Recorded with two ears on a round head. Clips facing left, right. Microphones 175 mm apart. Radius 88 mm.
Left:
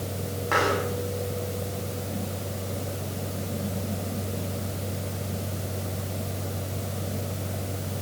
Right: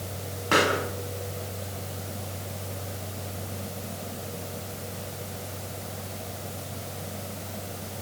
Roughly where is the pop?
Right.